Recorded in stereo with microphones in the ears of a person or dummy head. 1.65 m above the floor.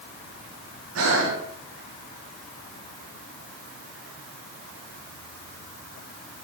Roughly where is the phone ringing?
No phone ringing in this recording.